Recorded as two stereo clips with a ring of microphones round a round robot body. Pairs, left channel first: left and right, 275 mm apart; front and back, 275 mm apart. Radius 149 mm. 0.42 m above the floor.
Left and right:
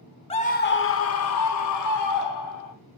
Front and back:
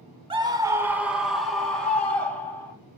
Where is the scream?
130° left, 0.8 m; by 2.7 s 85° left, 2 m.